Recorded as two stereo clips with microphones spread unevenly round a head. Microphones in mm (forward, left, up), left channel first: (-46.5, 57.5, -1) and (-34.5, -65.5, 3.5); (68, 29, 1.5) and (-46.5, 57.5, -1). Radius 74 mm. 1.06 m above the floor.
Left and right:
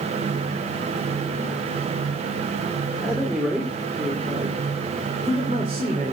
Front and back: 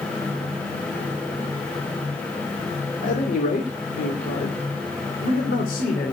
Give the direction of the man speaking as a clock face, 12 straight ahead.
12 o'clock.